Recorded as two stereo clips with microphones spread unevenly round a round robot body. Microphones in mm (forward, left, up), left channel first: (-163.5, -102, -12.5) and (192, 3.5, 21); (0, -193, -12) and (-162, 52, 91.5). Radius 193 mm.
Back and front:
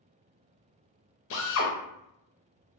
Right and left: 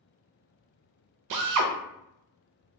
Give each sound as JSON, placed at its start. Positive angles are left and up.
{"t": 1.3, "sound": "a drill", "azimuth_deg": 150, "distance_m": 0.6}